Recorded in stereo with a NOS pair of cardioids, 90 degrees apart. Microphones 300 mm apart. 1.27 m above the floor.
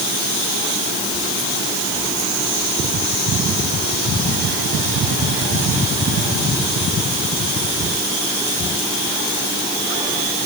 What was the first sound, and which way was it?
Only background noise.